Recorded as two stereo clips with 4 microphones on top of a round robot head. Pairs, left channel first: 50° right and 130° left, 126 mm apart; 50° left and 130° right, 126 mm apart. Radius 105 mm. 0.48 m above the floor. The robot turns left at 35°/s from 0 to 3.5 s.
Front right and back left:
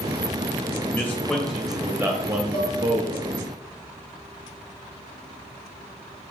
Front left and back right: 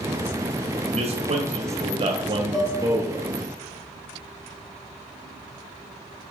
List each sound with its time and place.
0.9 s a man speaking: 115° right, 2 m; by 3.3 s 160° left, 2 m
2.5 s dishes clattering: 40° right, 3 m; by 2.8 s 50° right, 3 m